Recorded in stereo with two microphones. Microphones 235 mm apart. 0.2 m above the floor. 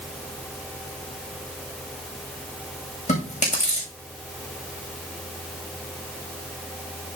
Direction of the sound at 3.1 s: 30° left (ahead or behind).